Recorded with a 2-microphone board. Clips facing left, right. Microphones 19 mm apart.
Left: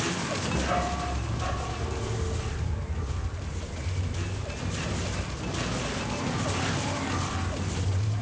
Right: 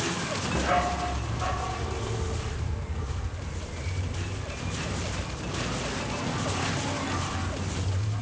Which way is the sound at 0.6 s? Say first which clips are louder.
Right 4 dB; 20° right (ahead or behind).